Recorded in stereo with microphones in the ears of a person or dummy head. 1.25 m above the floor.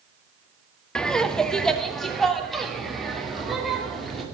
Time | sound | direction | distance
0.9 | laughter | 5° left (ahead or behind) | 0.7 m